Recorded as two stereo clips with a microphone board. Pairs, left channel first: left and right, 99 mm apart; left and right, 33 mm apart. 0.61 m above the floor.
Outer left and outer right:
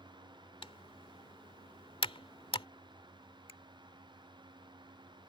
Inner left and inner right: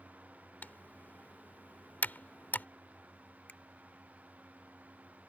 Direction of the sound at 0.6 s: 65° left (ahead or behind).